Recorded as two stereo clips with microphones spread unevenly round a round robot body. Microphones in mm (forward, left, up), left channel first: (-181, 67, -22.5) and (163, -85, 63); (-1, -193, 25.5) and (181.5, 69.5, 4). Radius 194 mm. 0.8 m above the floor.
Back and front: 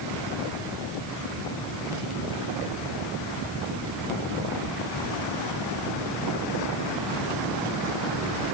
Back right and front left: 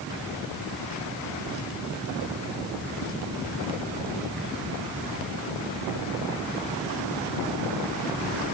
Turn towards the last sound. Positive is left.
No sound to turn to.